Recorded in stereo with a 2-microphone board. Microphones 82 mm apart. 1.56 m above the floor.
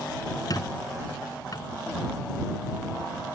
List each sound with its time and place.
0.5 s a squeak: 45° left (ahead or behind)